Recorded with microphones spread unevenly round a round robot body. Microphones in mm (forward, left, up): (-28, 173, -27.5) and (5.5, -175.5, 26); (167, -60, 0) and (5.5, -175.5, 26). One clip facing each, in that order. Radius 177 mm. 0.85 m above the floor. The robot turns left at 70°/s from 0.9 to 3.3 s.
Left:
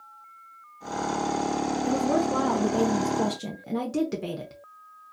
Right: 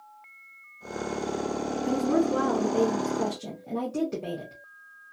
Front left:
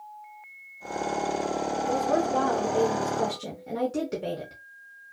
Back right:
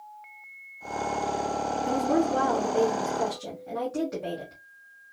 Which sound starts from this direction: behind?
A woman speaking, at 1.8 s.